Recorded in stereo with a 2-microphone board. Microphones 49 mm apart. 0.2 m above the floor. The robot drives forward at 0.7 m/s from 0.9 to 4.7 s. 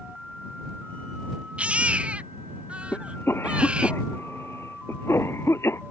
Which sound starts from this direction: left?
A cough, at 2.9 s.